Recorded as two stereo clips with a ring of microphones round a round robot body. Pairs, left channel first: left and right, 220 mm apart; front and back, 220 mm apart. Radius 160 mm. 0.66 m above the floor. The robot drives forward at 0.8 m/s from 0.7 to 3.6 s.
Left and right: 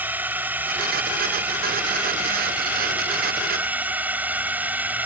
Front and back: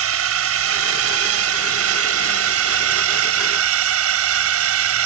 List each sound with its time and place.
0.0 s a drone: 175° right